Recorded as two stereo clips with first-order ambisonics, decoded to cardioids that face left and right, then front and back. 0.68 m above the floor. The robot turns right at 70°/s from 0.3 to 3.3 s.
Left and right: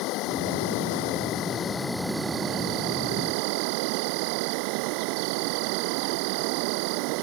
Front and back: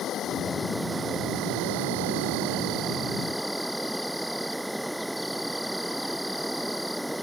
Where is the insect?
60° left; by 7.2 s 90° right.